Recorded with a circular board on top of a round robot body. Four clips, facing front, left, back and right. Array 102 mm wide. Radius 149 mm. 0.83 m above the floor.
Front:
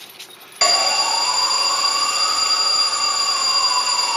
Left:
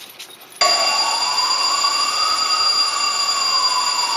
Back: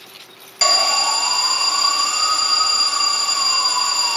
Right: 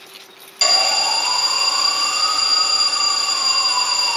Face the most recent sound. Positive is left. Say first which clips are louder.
# left 3 dB, even
turn(degrees=65)